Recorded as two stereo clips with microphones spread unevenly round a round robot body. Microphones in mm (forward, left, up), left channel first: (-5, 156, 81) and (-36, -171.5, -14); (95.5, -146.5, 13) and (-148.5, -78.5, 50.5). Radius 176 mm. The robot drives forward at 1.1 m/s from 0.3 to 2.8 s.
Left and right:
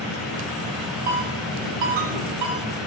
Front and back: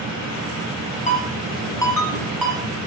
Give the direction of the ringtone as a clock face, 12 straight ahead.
3 o'clock.